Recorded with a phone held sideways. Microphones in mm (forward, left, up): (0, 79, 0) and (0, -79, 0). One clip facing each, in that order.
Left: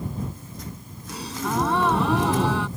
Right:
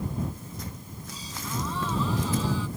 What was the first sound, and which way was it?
A gasp, 75° left (ahead or behind).